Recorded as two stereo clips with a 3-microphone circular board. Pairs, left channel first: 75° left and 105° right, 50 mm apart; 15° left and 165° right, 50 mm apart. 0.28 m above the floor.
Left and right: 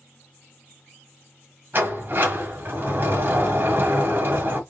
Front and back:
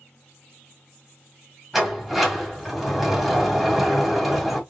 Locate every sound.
1.7 s a sliding door: 80° right, 1.7 m